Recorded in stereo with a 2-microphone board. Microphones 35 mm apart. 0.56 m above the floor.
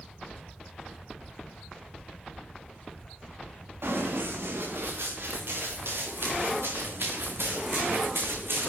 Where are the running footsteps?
80° right, 6 m.